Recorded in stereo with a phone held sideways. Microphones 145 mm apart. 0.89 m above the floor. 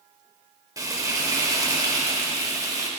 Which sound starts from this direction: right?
Frying, at 0.8 s.